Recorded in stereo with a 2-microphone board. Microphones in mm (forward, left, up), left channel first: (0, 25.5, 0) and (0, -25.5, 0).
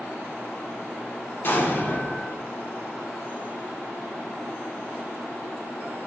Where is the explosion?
45° left (ahead or behind), 0.6 m.